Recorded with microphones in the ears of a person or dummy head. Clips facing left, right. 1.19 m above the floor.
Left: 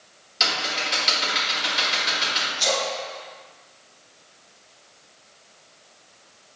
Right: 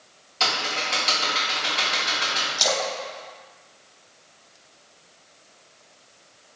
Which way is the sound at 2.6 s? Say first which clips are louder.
Even; 65° right (ahead or behind).